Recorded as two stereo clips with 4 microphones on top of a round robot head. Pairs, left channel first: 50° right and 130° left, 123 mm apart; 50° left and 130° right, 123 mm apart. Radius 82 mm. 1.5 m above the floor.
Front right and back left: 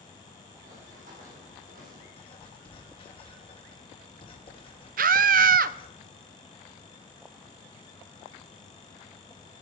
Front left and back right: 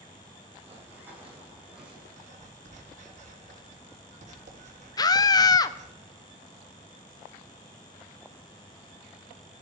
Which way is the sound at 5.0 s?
115° left.